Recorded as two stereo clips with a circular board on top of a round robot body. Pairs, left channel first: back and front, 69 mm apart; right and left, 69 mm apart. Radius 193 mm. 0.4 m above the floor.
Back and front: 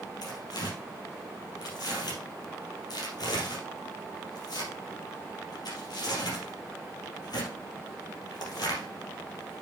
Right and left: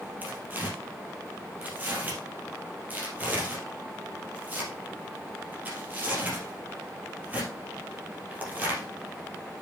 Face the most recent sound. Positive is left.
turn(degrees=160)